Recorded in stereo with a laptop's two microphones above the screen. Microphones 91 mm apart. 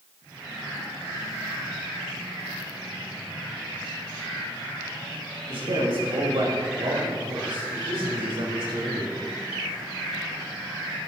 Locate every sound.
5.5 s a man speaking: 80° right, 5.5 m; by 9.2 s 60° right (ahead or behind), 5.5 m